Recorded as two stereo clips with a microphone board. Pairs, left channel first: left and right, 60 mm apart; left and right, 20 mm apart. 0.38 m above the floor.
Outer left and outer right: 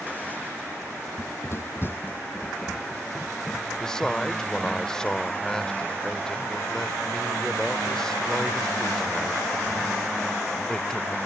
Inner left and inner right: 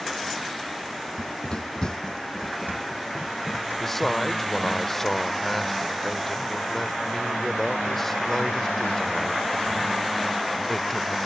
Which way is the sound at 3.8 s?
10° left (ahead or behind).